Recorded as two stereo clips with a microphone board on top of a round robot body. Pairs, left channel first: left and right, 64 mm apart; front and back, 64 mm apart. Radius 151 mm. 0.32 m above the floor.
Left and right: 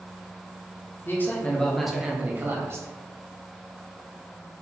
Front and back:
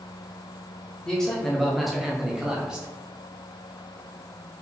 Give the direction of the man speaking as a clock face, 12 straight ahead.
10 o'clock.